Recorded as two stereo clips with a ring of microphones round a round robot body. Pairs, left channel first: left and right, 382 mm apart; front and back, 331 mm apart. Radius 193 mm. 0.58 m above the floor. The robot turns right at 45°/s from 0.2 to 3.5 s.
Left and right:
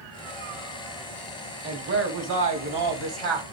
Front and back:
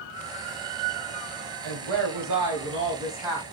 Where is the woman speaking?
165° right, 4 m; by 3.4 s 85° right, 4 m.